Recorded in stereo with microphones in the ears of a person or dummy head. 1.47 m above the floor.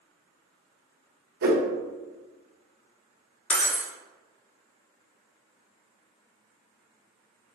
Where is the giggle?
I don't hear a giggle.